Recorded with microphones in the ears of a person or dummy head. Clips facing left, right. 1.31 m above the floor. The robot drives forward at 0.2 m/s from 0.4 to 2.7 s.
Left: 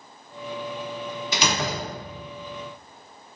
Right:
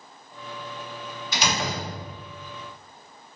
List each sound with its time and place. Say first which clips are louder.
1.3 s a door slam: even; 70° left (ahead or behind), 0.9 m; by 2.2 s 80° left, 0.9 m